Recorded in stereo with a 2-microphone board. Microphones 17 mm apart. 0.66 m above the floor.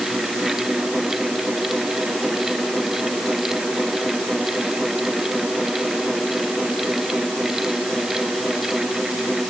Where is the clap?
No clap in this recording.